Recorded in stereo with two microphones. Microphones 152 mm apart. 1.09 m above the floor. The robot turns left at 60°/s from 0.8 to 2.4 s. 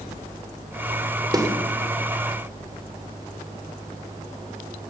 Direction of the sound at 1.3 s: 30° right (ahead or behind).